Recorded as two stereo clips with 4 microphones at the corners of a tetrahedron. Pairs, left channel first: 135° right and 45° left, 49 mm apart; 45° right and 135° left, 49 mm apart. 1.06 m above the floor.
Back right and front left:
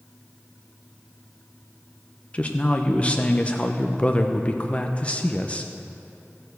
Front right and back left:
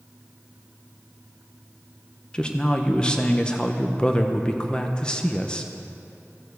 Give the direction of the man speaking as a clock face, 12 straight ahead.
3 o'clock.